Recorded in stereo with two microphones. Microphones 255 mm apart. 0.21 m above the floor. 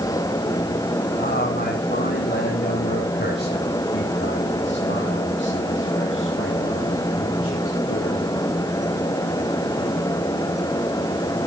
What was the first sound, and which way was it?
A man speaking, 35° left (ahead or behind).